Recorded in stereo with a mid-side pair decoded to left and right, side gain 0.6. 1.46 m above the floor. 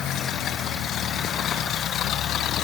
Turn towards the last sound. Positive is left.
No sound to turn to.